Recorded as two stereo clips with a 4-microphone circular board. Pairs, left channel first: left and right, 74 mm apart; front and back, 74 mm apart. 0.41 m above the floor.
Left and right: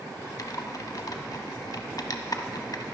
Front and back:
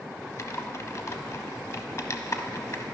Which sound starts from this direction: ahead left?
Typing on a keyboard, at 0.4 s.